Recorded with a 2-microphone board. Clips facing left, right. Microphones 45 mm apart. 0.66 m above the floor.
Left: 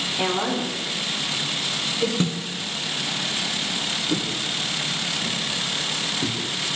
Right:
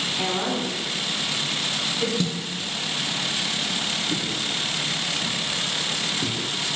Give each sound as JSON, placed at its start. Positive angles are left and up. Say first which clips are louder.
{"t": 0.2, "sound": "a woman speaking", "louder": "left 3 dB", "side_deg": 20, "distance_m": 1.8}
{"t": 2.2, "sound": "a snare drum", "louder": "left 2 dB", "side_deg": 35, "distance_m": 1.2}
{"t": 4.1, "sound": "footsteps", "louder": "left 1 dB", "side_deg": 50, "distance_m": 1.7}